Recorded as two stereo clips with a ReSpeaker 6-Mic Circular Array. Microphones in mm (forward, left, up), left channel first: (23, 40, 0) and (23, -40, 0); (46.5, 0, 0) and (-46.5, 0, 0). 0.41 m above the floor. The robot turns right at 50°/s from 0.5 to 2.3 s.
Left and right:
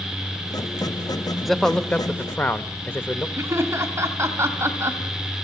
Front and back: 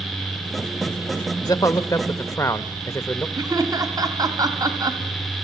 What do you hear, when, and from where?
1.4 s a man speaking: straight ahead, 0.9 m; by 3.3 s 40° left, 0.9 m
3.4 s laughter: 140° right, 2.5 m